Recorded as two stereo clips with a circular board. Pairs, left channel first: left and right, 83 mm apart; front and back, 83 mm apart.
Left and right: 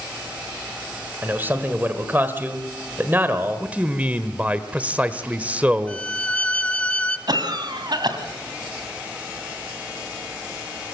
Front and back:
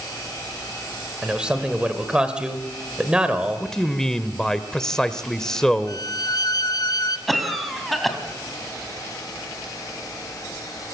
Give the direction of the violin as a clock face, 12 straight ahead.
11 o'clock.